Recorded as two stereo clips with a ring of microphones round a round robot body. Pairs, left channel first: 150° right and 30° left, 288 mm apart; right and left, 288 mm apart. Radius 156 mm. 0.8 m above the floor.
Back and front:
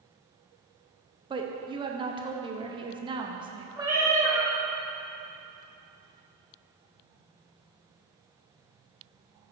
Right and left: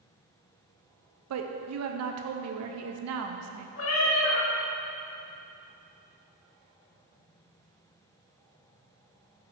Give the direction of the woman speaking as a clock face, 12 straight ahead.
9 o'clock.